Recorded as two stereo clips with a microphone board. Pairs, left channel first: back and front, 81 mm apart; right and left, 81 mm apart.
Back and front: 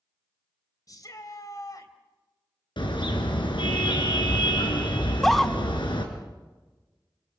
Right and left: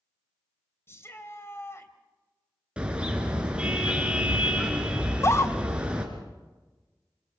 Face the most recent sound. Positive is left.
turn(degrees=-95)